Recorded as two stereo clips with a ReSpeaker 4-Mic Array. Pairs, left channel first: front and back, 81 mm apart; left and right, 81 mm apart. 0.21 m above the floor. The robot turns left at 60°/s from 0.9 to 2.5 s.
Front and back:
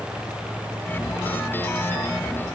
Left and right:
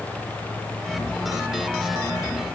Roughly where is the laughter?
No laughter in this recording.